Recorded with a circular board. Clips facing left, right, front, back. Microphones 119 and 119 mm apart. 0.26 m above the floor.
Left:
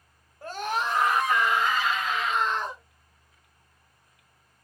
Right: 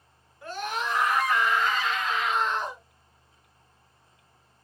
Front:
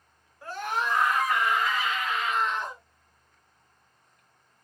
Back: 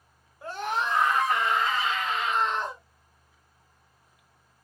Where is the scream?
120° left, 1.8 m; by 2.8 s 150° right, 1.5 m.